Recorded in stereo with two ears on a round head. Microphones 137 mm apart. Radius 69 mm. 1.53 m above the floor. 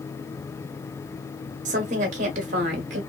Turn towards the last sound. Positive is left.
turn(degrees=-50)  # may be behind; listen again after turning